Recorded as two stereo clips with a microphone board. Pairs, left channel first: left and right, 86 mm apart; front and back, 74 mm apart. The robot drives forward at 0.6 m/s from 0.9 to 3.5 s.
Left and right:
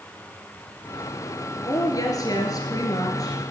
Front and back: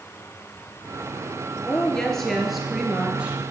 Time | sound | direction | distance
1.6 | a woman speaking | 70° left | 2.0 m